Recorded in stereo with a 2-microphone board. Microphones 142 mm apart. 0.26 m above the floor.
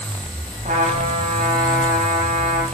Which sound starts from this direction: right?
A trumpet, at 0.7 s.